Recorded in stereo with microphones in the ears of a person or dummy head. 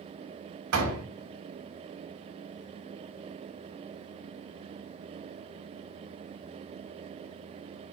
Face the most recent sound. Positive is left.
turn(degrees=-80)